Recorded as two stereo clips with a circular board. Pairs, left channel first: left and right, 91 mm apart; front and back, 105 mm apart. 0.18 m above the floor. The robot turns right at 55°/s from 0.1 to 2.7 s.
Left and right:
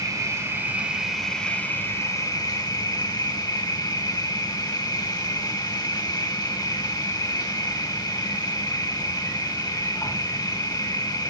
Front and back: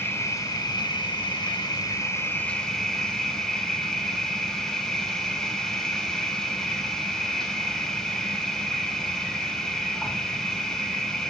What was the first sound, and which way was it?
An insect, 55° right.